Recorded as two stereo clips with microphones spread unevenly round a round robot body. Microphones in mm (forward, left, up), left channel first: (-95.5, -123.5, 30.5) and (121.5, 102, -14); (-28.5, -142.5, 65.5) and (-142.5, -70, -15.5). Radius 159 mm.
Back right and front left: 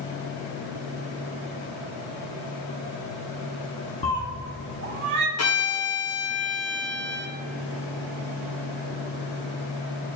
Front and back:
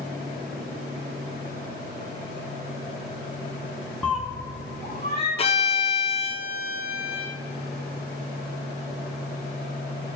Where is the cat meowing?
75° right, 0.8 m; by 5.3 s 90° left, 1.0 m.